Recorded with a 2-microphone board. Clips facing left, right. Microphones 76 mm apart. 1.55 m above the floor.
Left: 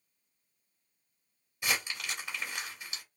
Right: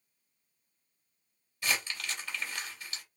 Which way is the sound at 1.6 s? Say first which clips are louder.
Even; 20° left (ahead or behind).